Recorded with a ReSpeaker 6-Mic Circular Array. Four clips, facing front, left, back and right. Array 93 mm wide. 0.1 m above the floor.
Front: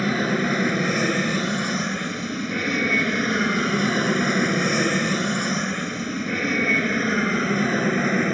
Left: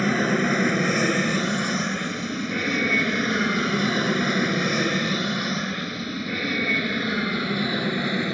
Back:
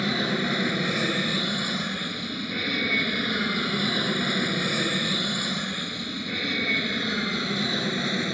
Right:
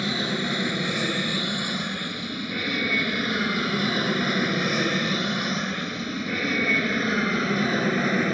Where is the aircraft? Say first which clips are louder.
Left 6 dB, front 4 dB; 55° left; by 8.3 s 25° right.